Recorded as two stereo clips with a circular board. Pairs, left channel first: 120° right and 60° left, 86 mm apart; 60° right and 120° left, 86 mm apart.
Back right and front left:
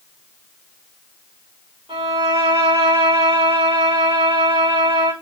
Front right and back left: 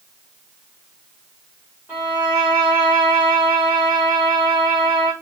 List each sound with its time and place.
1.9 s a violin: 55° left, 8.5 m